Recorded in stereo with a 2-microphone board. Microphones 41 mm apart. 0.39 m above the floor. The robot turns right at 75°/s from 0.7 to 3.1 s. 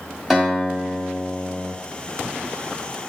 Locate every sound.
0.3 s a guitar: 175° right, 1.5 m; by 1.7 s 100° right, 1.5 m